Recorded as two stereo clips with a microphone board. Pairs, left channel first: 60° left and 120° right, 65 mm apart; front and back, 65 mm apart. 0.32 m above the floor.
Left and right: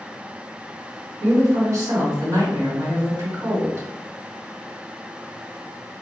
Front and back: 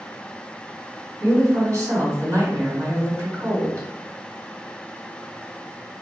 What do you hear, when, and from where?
1.2 s a woman speaking: 135° right, 1.8 m